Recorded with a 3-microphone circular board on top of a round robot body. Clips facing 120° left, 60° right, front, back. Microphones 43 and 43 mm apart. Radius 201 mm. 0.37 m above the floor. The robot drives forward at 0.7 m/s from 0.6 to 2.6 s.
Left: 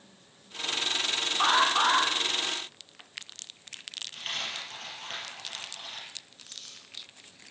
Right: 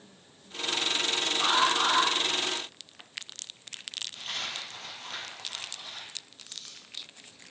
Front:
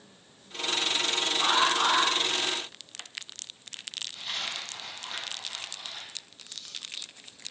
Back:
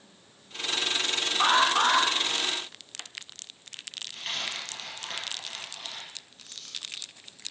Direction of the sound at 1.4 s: 145° left.